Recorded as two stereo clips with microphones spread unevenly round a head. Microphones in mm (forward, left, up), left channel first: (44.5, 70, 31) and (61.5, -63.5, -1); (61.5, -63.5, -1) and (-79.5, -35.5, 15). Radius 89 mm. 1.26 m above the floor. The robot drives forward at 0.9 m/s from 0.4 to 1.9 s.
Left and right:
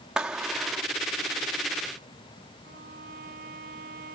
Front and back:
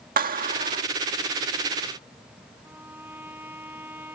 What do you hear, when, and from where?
0.2 s a clap: 170° right; by 0.8 s 175° right
2.6 s a violin: 115° right